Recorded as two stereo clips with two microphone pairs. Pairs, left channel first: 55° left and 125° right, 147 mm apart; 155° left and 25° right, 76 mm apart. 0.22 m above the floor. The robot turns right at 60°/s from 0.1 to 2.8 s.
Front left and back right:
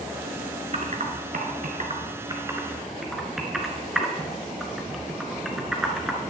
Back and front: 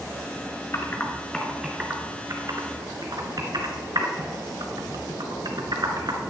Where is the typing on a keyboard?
160° right, 1.6 m; by 6.2 s 35° right, 1.6 m.